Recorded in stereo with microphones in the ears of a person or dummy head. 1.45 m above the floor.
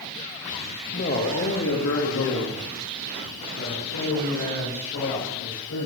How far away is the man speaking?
About 1.9 m.